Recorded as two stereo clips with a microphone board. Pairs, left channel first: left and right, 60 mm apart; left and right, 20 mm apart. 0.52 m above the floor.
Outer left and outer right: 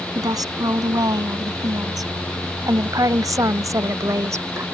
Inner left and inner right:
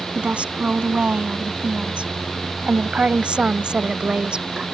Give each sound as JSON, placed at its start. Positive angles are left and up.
{"t": 0.1, "sound": "a woman speaking", "side_deg": -80}